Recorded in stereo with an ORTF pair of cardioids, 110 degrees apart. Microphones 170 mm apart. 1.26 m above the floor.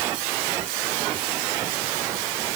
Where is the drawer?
I don't hear a drawer.